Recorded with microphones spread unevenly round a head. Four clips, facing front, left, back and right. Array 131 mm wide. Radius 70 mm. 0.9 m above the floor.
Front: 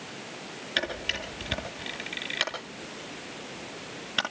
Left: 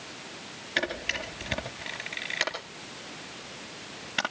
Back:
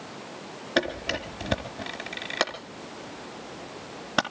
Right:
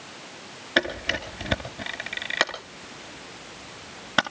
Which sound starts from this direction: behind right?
A camera shutter, at 0.8 s.